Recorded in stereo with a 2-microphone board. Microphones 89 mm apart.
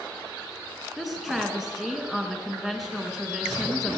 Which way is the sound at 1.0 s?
5° right (ahead or behind).